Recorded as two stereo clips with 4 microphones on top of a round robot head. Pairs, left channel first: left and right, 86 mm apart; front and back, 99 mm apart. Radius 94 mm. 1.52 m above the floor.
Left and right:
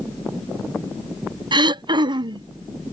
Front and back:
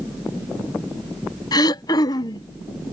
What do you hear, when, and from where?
1.5 s throat clearing: 55° right